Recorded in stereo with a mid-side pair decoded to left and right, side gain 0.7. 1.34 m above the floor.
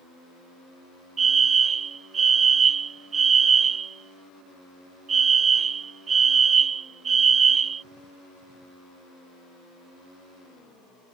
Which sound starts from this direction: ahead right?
A fire alarm, at 1.2 s.